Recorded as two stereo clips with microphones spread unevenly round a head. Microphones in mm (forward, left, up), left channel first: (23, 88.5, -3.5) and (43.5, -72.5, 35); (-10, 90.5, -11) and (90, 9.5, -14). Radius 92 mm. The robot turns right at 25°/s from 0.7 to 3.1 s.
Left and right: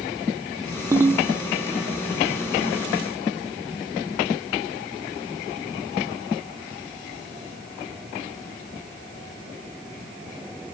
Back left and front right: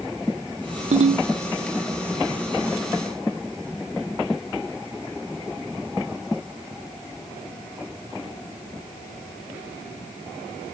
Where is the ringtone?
20° right; by 1.3 s 10° right.